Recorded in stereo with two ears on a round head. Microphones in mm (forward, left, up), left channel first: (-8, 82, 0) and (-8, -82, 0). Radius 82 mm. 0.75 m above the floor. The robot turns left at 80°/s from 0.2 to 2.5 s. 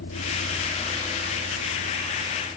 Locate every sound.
0.0 s a vehicle: 80° left; by 2.6 s 10° right (ahead or behind)